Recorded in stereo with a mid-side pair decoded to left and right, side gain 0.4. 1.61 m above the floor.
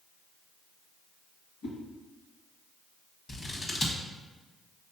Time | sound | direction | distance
1.6 | a whoosh | 70° left | 1.8 m
3.3 | scissors | 50° left | 1.3 m